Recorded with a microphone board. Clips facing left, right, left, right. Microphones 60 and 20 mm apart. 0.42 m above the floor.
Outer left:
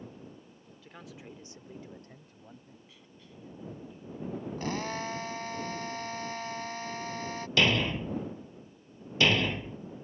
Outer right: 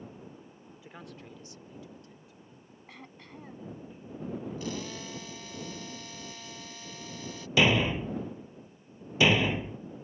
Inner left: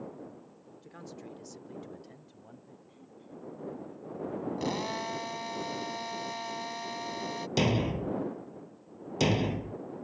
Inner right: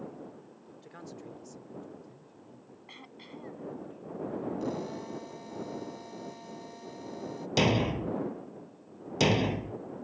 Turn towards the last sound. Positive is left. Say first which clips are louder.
# outer right 2 dB, inner right 2 dB
turn(degrees=-15)  # may be behind; listen again after turning